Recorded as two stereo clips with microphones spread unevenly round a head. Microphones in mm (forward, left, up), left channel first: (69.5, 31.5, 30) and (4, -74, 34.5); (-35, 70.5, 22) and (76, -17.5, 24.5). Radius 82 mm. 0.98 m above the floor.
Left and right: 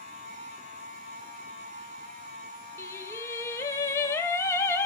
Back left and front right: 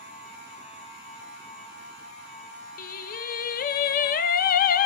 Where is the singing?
130° left, 0.8 m.